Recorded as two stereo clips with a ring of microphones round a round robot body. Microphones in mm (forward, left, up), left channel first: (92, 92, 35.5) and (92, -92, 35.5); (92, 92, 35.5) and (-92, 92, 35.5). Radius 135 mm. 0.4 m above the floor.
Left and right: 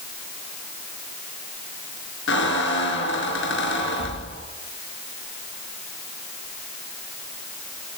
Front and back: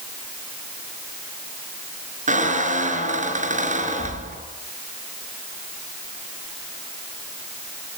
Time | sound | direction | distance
2.3 | a squeak | 130° left | 3.5 m